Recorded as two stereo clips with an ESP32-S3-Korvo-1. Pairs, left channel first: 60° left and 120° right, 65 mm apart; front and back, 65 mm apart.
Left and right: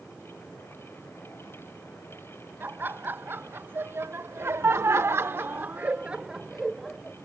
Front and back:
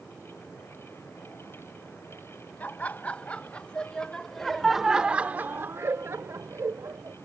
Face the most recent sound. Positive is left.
turn(degrees=150)